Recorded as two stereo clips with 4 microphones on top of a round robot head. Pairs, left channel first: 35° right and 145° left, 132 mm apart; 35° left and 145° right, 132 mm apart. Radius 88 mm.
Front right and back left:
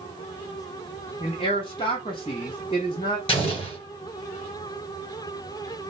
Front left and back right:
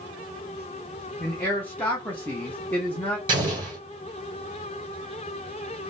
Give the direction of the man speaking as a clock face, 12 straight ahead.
1 o'clock.